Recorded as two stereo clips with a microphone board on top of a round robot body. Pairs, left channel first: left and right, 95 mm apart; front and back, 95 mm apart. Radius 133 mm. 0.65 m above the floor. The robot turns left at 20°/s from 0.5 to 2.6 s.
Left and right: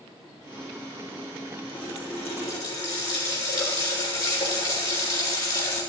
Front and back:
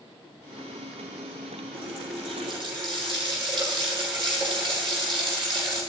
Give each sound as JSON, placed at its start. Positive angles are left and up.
{"t": 1.7, "sound": "a running tap", "azimuth_deg": 165, "distance_m": 7.0}